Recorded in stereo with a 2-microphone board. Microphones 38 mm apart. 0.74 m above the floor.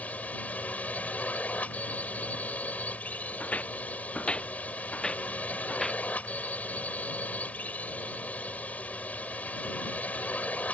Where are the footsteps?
40° left (ahead or behind); by 6.0 s 10° left (ahead or behind).